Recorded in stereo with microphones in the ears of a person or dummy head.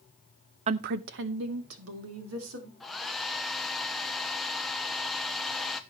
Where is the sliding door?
I don't hear a sliding door.